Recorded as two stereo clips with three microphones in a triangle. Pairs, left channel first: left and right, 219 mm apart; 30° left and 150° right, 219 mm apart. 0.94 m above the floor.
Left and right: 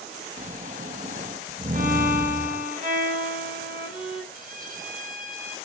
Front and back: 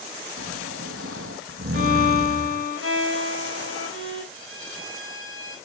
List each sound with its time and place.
0.4 s snoring: 145° right, 0.8 m
1.7 s a violin: 140° right, 4.5 m
4.3 s a violin: 140° right, 3.5 m